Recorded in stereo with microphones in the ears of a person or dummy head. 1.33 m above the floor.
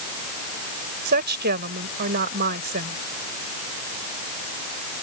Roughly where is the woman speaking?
Right.